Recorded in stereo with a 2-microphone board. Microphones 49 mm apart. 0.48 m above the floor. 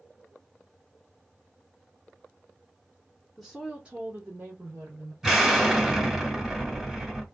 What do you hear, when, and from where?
3.4 s a woman speaking: centre (ahead or behind), 0.8 m; by 5.1 s 60° right (ahead or behind), 1.4 m
5.2 s an explosion: 10° right (ahead or behind), 1.0 m